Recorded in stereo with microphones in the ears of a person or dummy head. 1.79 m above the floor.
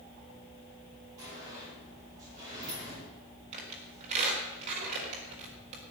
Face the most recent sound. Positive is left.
turn(degrees=-40)  # may be behind; listen again after turning